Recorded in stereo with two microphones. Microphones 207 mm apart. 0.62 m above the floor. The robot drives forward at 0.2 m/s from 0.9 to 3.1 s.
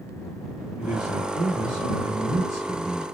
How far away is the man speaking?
About 1.7 m.